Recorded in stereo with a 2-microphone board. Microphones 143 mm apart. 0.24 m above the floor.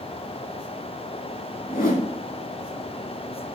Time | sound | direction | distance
1.7 | a whoosh | 75° left (ahead or behind) | 0.6 m